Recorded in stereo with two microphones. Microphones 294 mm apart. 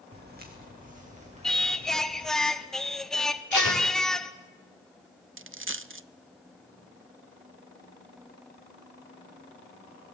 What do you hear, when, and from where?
0.1 s footsteps: 35° right (ahead or behind), 3.5 m; by 2.3 s 15° right (ahead or behind), 4 m
1.4 s singing: centre (ahead or behind), 1.0 m
3.5 s tape being pulled: 80° right, 4 m
5.4 s a dropped coin: 45° right (ahead or behind), 0.5 m